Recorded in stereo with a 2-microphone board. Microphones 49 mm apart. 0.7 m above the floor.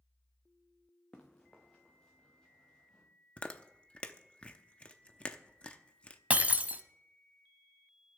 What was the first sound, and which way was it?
Running footsteps, 20° left (ahead or behind).